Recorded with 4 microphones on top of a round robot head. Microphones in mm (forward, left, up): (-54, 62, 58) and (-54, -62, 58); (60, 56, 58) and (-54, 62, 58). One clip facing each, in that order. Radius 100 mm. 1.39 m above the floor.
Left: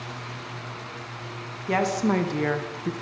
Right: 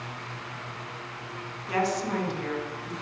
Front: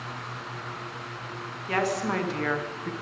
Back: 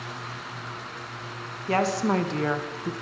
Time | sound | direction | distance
1.7 | a woman speaking | 120° left | 2.0 m